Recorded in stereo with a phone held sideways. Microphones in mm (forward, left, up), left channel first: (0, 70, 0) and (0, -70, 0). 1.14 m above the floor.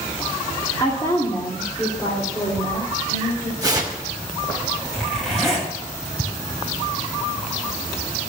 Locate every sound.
0.8 s a woman speaking: 20° left (ahead or behind), 2 m; by 3.5 s 25° left (ahead or behind), 4 m
3.6 s tearing paper: 25° right (ahead or behind), 2 m
4.9 s a zipper: centre (ahead or behind), 7.5 m